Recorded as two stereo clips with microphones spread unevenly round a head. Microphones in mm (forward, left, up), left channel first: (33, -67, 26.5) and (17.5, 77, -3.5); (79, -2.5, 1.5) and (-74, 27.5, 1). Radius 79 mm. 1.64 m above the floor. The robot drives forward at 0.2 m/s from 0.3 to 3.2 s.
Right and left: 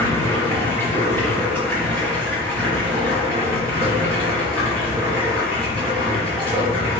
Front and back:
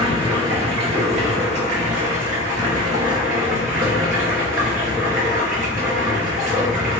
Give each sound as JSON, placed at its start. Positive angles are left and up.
{"t": 0.0, "sound": "running water", "azimuth_deg": -145, "distance_m": 1.1}